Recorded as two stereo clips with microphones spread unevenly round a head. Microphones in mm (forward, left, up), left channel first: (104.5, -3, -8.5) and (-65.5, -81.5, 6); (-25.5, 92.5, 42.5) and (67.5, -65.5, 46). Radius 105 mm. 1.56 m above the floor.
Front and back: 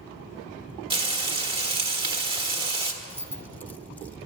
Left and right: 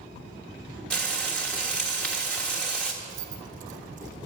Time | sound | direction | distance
0.9 | frying | 155° right | 1.3 m
3.0 | keys jangling | 55° right | 0.5 m